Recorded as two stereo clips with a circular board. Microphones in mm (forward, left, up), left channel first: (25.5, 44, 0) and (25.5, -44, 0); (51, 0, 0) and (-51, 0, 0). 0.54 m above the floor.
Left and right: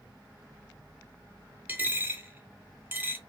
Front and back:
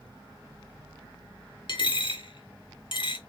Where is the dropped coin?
25° right, 0.6 m.